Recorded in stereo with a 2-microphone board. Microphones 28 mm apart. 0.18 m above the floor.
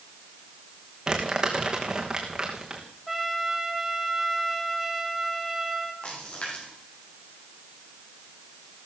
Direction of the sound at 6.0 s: 45° left (ahead or behind).